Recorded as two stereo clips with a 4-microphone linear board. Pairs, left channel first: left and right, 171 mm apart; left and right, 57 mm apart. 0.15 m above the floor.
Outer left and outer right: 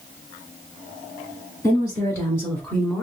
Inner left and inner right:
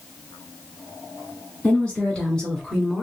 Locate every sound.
1.6 s a woman speaking: 25° left (ahead or behind), 1.5 m; by 3.0 s 5° left (ahead or behind), 1.4 m